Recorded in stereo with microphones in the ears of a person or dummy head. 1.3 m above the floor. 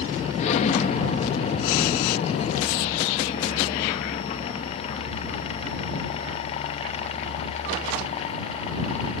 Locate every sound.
0.4 s an explosion: 45° left (ahead or behind)